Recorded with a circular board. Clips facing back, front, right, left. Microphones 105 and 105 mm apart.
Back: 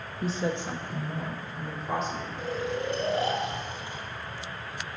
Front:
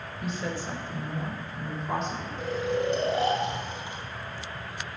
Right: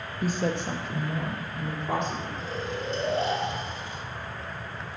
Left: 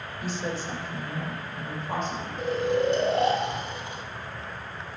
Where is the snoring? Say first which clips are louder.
Front 4 dB, left 8 dB; 70° left, 1.2 m.